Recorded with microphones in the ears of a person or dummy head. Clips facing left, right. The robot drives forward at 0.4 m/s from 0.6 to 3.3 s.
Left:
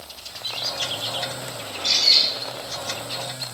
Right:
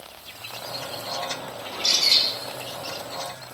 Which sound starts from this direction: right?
A bird, at 1.7 s.